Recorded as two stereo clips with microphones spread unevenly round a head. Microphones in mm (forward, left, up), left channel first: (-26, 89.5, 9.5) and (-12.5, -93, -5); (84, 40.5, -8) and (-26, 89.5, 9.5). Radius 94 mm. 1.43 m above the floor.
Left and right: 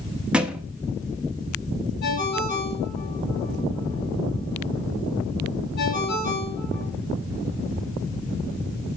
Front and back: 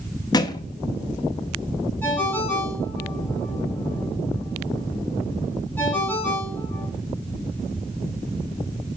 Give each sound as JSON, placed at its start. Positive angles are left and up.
{"t": 0.3, "sound": "a thud", "azimuth_deg": 5, "distance_m": 0.8}
{"t": 2.0, "sound": "a ringtone", "azimuth_deg": 55, "distance_m": 6.0}